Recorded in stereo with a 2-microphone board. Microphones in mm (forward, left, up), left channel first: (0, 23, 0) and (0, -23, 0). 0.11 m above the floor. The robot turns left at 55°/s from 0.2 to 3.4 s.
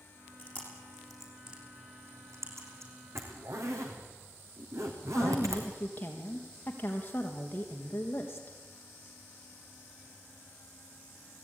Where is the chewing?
40° left (ahead or behind), 6.5 m; by 2.9 s 75° right (ahead or behind), 6.5 m.